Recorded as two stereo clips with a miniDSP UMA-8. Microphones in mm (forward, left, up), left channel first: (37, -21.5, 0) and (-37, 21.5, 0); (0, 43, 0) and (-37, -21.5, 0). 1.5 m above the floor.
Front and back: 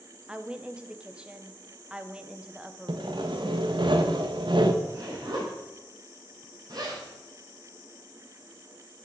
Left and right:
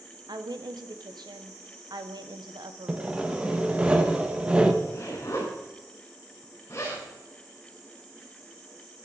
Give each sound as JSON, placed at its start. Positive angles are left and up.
{"t": 0.3, "sound": "a woman speaking", "azimuth_deg": -130, "distance_m": 1.1}
{"t": 2.9, "sound": "sawing", "azimuth_deg": 165, "distance_m": 1.2}
{"t": 4.8, "sound": "a zipper", "azimuth_deg": 110, "distance_m": 4.0}